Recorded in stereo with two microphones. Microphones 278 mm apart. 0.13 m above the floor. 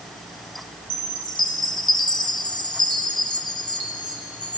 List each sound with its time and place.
0.9 s a chime: 15° left (ahead or behind), 1.9 m